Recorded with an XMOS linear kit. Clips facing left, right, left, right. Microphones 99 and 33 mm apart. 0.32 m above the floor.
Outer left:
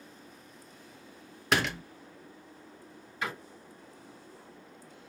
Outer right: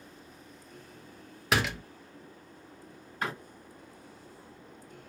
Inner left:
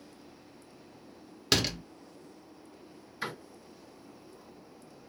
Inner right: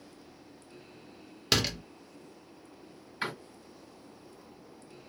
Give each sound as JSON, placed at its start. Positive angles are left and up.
{"t": 1.5, "sound": "a door slam", "side_deg": 0, "distance_m": 0.6}
{"t": 3.2, "sound": "a door slam", "side_deg": -50, "distance_m": 1.7}